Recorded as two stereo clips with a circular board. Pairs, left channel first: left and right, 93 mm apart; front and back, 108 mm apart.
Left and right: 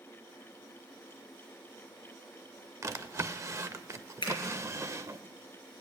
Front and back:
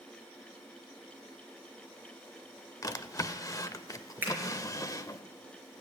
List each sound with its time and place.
2.8 s a drawer: 45° right, 0.6 m
4.2 s a finger snap: 110° left, 4.5 m